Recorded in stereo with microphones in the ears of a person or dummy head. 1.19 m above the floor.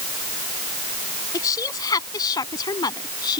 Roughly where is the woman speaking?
Centre.